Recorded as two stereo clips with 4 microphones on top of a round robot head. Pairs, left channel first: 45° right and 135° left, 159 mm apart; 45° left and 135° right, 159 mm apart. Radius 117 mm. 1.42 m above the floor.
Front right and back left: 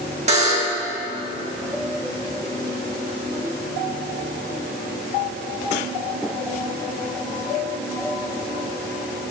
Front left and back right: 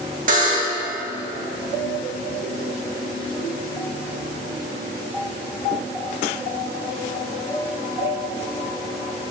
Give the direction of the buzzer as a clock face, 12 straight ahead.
6 o'clock.